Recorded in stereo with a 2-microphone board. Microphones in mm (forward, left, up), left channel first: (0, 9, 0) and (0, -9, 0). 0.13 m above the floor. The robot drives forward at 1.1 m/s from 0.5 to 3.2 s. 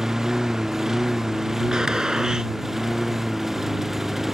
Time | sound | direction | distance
0.0 | a lawn mower | 25° right (ahead or behind) | ?
1.7 | a gunshot | 35° right (ahead or behind) | ?